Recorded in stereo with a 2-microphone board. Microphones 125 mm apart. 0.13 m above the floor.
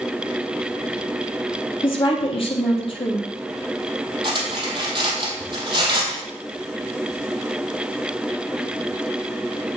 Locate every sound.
1.8 s a woman speaking: 45° left (ahead or behind), 3 m
4.2 s cutlery clinking: 40° right (ahead or behind), 2.5 m